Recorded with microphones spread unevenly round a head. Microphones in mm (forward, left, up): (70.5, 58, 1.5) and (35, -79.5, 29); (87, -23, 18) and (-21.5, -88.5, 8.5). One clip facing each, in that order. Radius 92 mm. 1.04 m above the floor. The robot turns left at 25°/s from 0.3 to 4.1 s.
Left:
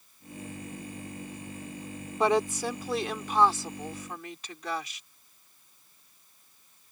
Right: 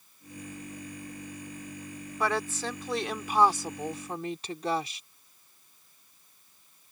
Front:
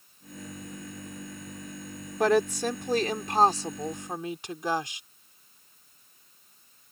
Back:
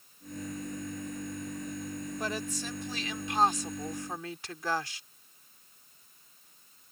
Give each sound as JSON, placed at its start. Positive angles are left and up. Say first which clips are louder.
{"t": 2.2, "sound": "a woman speaking", "louder": "left 5 dB, front 15 dB", "azimuth_deg": 5}